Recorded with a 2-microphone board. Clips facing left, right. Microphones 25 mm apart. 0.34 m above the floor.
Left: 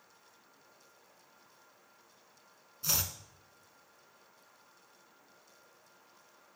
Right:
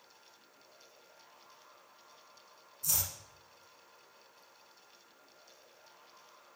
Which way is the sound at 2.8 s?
40° left (ahead or behind).